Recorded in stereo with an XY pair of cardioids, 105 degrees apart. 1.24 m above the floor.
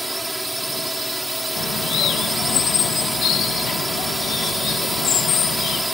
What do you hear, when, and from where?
0.0 s a drone: 10° right
1.6 s a bird: 70° left